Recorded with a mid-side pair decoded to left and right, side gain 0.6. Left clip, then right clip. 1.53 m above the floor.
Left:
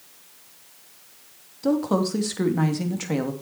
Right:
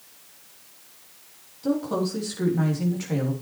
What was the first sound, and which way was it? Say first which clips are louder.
A woman speaking: left 3 dB; 35° left.